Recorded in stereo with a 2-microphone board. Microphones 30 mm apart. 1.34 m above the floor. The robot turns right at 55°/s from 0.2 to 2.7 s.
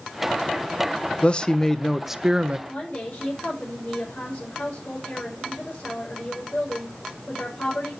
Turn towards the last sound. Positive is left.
turn(degrees=85)